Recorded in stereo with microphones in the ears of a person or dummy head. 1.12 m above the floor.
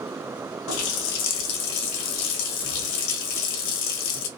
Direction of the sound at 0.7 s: 65° left (ahead or behind).